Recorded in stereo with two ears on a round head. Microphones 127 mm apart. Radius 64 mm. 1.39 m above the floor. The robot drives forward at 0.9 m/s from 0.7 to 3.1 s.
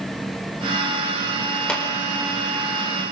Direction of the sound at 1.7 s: 5° left (ahead or behind).